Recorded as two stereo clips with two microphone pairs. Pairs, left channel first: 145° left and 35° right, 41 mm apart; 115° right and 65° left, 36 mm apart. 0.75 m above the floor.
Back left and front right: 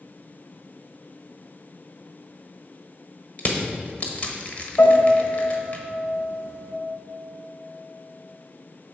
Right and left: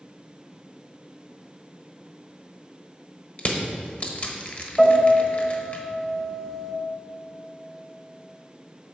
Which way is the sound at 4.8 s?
160° left.